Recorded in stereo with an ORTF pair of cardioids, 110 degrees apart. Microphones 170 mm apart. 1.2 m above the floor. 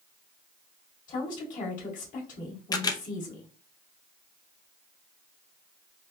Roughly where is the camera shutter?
Ahead left.